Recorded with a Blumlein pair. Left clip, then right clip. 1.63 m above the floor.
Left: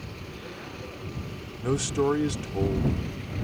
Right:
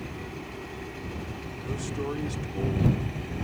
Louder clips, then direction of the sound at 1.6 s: Left 9 dB; 55° left.